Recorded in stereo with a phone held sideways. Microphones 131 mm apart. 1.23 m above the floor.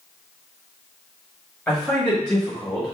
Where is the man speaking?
15° left (ahead or behind), 1.2 m.